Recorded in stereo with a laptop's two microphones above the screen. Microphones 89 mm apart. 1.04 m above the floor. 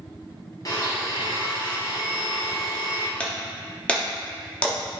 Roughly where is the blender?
Left.